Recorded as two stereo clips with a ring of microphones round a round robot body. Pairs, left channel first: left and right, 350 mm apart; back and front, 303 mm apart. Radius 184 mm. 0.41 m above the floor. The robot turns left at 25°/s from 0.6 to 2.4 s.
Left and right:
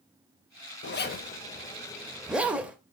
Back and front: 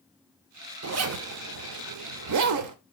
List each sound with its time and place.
0.8 s a zipper: 35° left, 0.7 m; by 2.8 s 5° right, 0.7 m